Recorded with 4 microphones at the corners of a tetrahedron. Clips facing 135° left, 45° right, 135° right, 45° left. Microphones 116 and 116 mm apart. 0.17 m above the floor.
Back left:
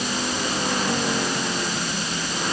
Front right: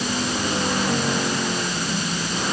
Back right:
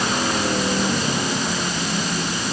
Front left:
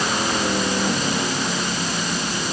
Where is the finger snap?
No finger snap in this recording.